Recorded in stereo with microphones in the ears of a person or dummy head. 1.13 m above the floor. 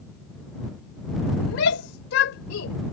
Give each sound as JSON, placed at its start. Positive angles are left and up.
{"t": 1.4, "sound": "a shout", "side_deg": 70}